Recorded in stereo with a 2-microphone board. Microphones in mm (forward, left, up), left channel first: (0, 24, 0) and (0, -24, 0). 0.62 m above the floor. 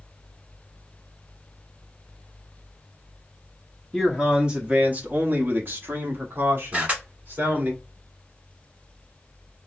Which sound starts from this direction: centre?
A man speaking, at 3.9 s.